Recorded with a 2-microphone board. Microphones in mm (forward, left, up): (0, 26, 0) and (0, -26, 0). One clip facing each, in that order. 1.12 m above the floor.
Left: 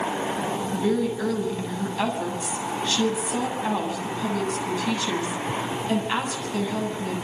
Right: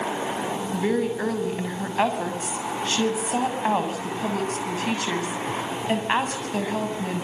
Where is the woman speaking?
35° right (ahead or behind), 7 m.